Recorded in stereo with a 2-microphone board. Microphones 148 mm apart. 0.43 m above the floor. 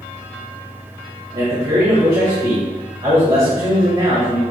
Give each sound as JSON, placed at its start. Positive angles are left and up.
{"t": 1.3, "sound": "a man speaking", "side_deg": -40, "distance_m": 1.6}